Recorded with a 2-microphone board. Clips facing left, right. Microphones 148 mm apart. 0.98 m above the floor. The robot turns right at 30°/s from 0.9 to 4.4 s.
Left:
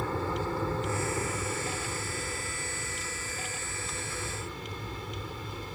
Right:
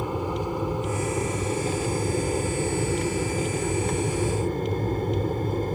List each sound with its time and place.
0.0 s an aircraft: 160° right; by 5.8 s 55° right